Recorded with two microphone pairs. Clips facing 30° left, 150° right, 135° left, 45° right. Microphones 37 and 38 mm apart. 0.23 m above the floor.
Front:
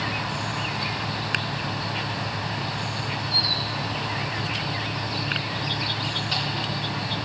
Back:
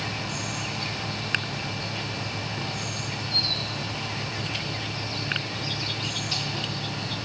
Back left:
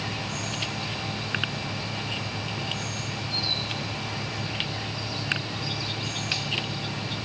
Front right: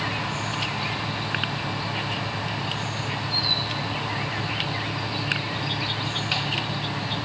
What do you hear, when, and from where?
0.0 s an insect: 10° right, 1.1 m